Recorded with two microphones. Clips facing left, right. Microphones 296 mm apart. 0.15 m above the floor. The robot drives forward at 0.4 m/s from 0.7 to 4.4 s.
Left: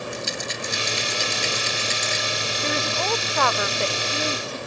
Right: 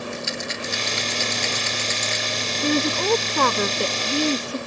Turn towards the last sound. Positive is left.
turn(degrees=-45)  # may be behind; listen again after turning